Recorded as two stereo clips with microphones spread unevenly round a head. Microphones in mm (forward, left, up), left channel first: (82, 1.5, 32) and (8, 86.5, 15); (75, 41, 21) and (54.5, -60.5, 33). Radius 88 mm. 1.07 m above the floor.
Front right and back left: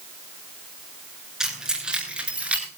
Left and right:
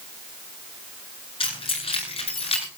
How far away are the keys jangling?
About 9.5 m.